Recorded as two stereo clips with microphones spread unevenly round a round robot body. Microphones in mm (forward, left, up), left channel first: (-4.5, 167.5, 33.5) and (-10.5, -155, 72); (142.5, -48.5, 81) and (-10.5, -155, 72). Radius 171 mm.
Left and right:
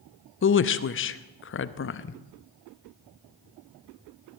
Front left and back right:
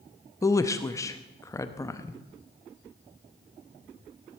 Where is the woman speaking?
105° left, 0.7 m.